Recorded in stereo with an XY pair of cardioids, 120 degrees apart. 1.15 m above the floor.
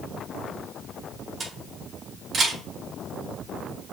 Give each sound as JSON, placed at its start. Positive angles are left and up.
{"t": 1.4, "sound": "a camera shutter", "azimuth_deg": -35, "distance_m": 2.0}